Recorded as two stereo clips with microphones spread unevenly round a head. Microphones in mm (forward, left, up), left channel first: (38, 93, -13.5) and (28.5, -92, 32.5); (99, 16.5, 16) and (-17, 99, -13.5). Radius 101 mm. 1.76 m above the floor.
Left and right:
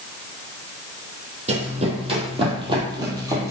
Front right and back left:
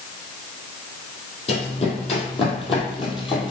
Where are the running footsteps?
60° right, 3 m; by 3.5 s 45° right, 2.5 m.